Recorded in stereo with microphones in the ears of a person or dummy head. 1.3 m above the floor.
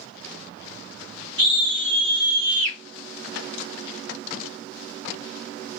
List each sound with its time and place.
1.4 s a scream: 60° right (ahead or behind), 1.3 m; by 2.8 s 30° right (ahead or behind), 0.7 m